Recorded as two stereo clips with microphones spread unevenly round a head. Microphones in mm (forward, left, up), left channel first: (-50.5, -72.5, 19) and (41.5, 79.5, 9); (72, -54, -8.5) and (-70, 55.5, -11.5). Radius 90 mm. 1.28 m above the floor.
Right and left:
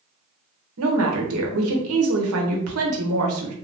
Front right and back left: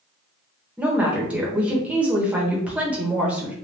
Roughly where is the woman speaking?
Ahead left.